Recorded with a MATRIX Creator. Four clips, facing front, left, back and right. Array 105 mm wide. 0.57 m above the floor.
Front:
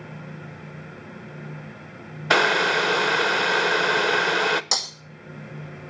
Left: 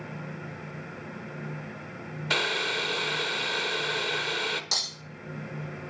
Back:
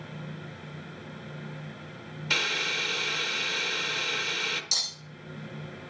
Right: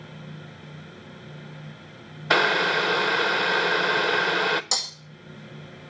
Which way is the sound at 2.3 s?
30° right.